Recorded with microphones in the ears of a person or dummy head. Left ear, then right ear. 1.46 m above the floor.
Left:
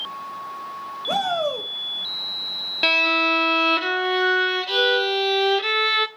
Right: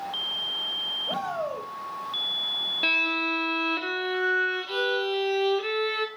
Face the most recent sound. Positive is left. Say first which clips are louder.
# left 8 dB
turn(degrees=30)  # may be behind; listen again after turning